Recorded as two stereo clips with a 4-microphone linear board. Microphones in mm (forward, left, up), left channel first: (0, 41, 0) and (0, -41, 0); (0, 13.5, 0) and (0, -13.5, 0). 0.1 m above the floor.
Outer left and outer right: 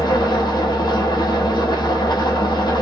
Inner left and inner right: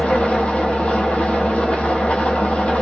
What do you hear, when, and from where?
0.0 s an engine running: 55° left (ahead or behind), 0.8 m